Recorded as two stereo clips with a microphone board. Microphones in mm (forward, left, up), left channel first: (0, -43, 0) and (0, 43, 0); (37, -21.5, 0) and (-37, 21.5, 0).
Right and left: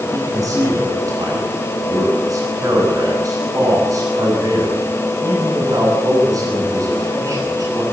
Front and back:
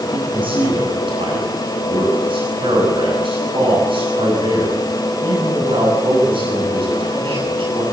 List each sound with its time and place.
0.1 s a man speaking: 140° left, 8.5 m